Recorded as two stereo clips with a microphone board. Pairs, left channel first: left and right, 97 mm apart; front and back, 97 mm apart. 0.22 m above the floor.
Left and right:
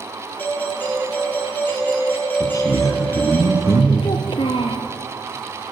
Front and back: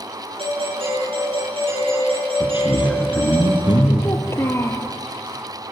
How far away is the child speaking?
About 3 m.